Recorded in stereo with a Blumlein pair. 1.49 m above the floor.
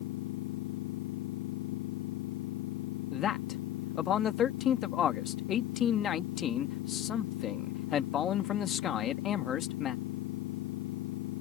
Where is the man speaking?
25° left.